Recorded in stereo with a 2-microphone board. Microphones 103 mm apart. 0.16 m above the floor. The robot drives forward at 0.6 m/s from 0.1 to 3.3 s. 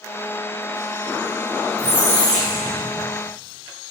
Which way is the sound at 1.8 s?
25° left (ahead or behind).